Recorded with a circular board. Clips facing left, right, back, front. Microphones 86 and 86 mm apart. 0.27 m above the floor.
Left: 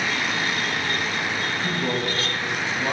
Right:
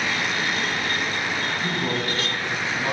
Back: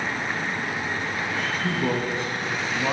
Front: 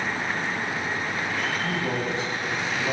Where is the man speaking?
170° right, 2.5 m; by 2.9 s 170° left, 2 m.